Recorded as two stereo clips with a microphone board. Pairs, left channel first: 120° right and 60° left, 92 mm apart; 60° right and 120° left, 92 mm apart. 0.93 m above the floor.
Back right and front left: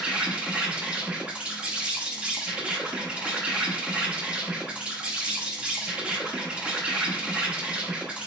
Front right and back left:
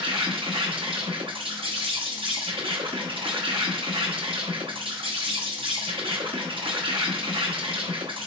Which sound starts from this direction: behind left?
An insect, at 0.0 s.